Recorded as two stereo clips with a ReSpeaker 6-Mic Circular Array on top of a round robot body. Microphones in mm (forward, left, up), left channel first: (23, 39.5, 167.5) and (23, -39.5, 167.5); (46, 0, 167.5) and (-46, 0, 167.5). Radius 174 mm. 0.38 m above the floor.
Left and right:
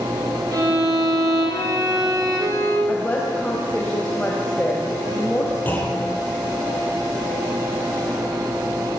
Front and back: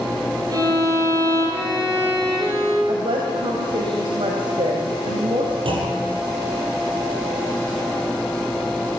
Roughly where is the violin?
Behind right.